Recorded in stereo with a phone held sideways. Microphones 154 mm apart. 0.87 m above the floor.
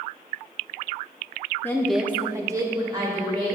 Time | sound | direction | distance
1.6 | a woman speaking | 15° left (ahead or behind) | 0.8 m